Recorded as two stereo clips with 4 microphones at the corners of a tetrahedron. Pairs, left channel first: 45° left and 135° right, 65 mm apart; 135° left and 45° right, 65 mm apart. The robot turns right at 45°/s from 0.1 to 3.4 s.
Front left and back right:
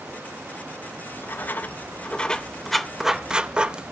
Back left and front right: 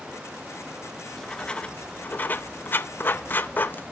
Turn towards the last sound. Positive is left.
turn(degrees=155)